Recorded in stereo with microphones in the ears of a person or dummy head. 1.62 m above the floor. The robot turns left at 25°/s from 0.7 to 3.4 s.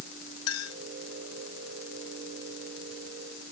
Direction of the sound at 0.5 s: 25° left (ahead or behind).